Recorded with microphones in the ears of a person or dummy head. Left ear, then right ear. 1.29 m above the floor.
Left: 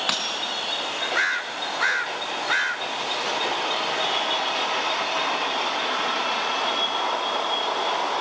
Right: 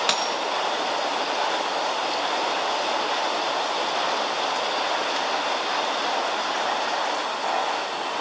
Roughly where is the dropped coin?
Right.